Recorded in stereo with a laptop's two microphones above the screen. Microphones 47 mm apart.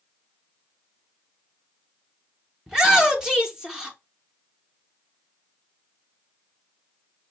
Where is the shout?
15° right (ahead or behind), 0.6 m.